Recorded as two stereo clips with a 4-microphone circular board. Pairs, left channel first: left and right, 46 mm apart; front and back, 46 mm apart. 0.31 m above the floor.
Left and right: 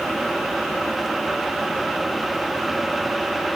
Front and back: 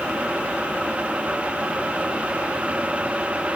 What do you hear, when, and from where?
Only background noise.